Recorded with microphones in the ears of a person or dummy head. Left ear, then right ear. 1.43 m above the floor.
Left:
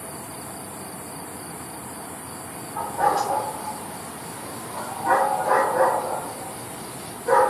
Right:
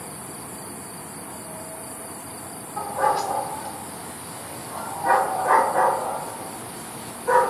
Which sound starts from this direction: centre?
A dog barking, at 2.8 s.